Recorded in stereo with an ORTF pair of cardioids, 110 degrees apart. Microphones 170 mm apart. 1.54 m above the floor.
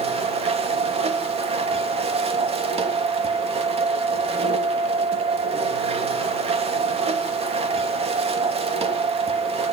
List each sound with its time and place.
0.0 s a machine running: 35° right, 3 m